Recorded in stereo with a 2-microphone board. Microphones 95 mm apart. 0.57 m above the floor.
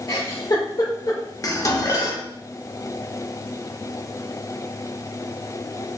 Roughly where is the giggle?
Left.